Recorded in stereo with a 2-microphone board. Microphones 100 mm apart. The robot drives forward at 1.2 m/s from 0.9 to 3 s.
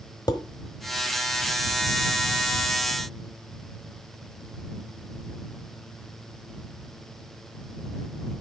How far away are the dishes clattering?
About 1.2 m.